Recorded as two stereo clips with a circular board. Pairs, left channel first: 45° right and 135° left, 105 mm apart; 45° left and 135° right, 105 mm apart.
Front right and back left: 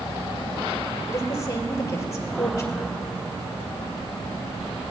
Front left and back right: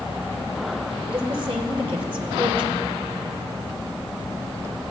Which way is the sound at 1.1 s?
105° right.